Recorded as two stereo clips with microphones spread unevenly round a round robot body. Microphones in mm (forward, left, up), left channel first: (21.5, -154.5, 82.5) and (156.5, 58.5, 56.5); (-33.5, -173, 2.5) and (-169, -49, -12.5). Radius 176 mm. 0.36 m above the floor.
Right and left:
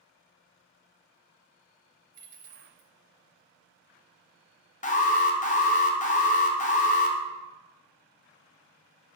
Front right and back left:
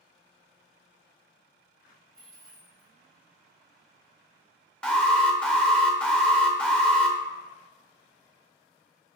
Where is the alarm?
135° right, 0.6 m.